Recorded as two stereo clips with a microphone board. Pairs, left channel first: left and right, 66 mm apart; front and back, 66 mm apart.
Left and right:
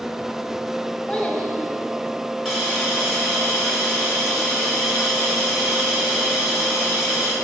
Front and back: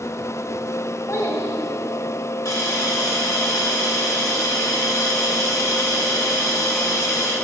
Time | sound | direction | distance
1.1 | a child speaking | 15° left | 1.3 m
2.5 | a hiss | 5° right | 1.7 m